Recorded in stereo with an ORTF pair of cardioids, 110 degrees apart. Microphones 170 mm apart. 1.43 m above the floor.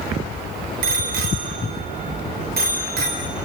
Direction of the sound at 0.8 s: 70° right.